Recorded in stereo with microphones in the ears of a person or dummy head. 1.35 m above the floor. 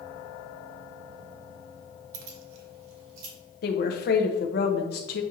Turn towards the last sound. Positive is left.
turn(degrees=50)  # may be behind; listen again after turning